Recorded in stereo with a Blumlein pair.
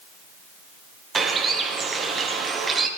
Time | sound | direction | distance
1.1 | a bird | 15° right | 1.4 m